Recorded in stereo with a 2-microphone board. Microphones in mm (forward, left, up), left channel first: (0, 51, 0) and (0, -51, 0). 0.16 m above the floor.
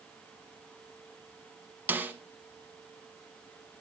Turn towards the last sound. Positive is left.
turn(degrees=-15)  # may be behind; listen again after turning